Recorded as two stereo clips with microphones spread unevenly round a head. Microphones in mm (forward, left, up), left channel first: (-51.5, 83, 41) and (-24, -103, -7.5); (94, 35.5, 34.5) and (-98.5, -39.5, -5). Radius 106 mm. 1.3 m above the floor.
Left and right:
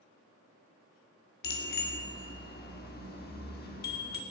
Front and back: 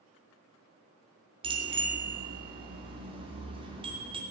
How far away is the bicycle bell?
About 2.5 m.